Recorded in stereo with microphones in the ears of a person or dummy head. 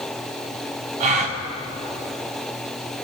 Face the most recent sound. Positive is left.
turn(degrees=-40)  # may be behind; listen again after turning